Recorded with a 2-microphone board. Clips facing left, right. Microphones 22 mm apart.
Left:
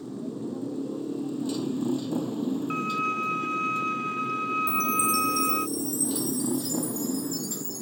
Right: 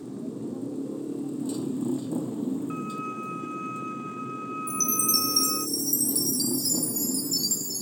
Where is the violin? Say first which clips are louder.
Left 5 dB; 50° left (ahead or behind).